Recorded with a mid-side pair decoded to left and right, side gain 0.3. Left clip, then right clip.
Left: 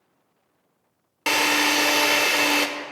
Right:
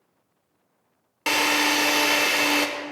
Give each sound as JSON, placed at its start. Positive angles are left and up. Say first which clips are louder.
{"t": 1.3, "sound": "a drill", "louder": "left 1 dB", "azimuth_deg": 10, "distance_m": 0.7}